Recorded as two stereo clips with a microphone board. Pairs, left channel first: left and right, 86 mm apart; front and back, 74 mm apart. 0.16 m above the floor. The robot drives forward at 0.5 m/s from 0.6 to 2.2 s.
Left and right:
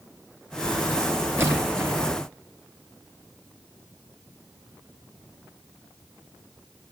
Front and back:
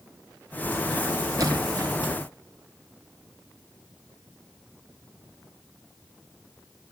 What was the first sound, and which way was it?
A splash, 145° right.